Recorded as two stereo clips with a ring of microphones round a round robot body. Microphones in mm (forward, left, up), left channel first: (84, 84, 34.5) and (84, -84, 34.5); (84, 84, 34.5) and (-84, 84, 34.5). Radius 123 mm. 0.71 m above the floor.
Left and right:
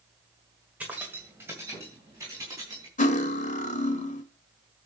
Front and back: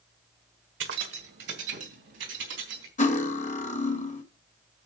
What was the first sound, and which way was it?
Keys jangling, 175° right.